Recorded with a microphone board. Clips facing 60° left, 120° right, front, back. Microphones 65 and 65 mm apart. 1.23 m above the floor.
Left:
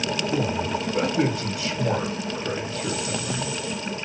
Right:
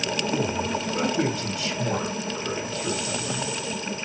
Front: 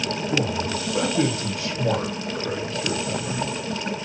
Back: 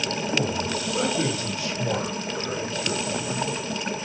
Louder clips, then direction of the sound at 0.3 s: Left 1 dB, front 2 dB; 5° left.